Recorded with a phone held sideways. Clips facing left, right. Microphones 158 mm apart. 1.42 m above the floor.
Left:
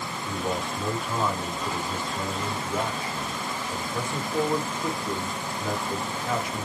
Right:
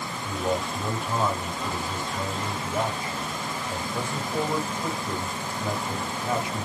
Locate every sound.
0.2 s a man speaking: 20° right (ahead or behind), 2.5 m